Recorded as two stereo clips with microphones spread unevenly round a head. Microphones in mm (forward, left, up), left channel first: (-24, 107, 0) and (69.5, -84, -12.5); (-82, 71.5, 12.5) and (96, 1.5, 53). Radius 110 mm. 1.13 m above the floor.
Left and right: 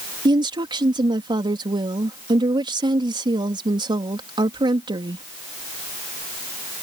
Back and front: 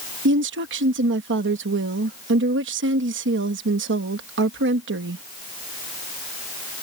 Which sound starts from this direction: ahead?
A woman speaking, at 0.2 s.